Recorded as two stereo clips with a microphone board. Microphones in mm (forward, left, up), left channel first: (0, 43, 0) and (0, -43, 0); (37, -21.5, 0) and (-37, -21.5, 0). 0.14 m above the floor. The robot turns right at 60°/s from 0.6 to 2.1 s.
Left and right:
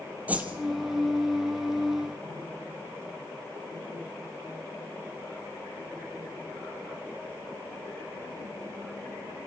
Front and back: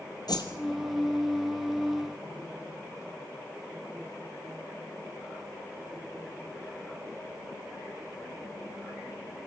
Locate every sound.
0.3 s a whoosh: 20° right, 2.5 m